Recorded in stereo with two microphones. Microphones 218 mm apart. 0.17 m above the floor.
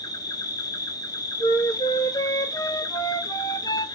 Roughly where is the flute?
Centre.